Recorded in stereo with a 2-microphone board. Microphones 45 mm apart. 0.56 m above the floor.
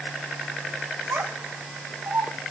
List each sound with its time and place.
1.1 s a child speaking: 70° right (ahead or behind), 3 m; by 2.3 s 55° right (ahead or behind), 4 m